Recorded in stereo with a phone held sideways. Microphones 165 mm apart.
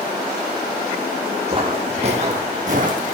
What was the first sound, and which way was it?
Footsteps, 30° right (ahead or behind).